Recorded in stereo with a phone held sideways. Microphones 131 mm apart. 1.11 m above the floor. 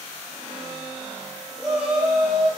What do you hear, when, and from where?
1.6 s a shout: 5° right (ahead or behind), 3 m